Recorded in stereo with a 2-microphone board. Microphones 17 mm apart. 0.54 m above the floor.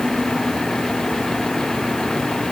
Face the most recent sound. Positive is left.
No sound to turn to.